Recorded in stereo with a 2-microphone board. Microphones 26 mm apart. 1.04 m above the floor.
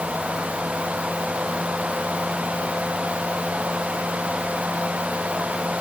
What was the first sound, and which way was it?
Only background noise.